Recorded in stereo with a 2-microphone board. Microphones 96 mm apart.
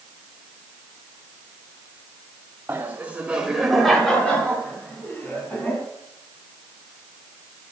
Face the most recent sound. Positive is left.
turn(degrees=20)  # may be behind; listen again after turning